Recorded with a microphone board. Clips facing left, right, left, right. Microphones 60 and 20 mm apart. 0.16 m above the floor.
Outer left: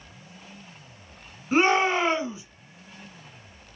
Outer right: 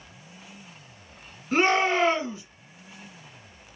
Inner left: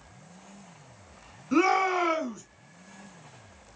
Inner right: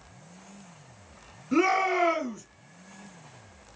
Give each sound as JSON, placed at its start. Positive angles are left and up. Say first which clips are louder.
{"t": 1.5, "sound": "a shout", "louder": "outer left 1 dB, even", "side_deg": 25, "distance_m": 1.6}